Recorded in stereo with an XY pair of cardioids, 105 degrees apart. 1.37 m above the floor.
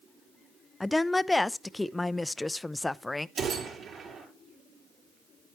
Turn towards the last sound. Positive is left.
turn(degrees=-60)